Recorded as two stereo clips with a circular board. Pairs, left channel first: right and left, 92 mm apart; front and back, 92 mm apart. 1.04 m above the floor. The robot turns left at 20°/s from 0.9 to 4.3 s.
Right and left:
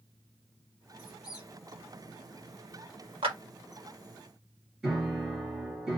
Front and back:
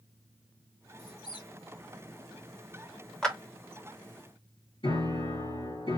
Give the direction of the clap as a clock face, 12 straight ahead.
9 o'clock.